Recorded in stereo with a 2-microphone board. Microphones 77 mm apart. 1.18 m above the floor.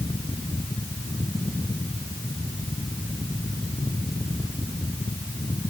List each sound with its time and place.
Only background noise.